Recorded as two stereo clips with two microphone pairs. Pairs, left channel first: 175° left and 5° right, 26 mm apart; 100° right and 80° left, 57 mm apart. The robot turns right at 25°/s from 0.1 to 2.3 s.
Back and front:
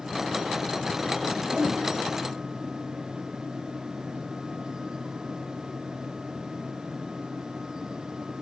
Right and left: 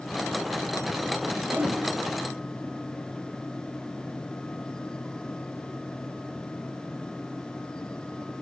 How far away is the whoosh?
About 0.8 m.